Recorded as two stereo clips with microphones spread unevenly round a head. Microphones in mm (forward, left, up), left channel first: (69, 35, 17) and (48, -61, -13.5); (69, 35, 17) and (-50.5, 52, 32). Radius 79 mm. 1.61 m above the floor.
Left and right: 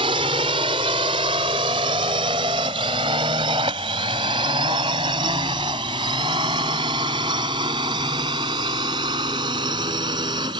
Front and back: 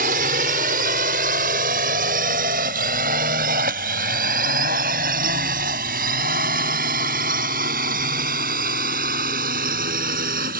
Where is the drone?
160° right; by 10.6 s 165° right.